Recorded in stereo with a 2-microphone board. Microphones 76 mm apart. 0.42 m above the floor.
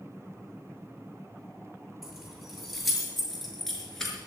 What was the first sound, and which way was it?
Keys jangling, centre (ahead or behind).